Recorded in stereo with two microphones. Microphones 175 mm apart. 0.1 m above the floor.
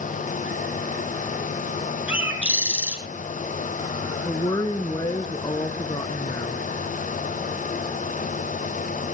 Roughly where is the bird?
Centre.